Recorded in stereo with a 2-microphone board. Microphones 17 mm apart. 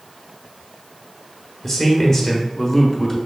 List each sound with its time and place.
1.6 s a man speaking: 15° left (ahead or behind), 0.9 m